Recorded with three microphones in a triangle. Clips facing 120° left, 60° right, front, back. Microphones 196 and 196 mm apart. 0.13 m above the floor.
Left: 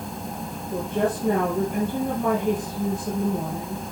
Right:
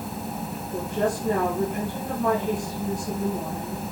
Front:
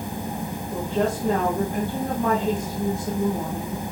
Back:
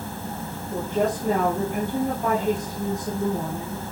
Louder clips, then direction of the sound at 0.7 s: Left 2 dB, even; 105° left.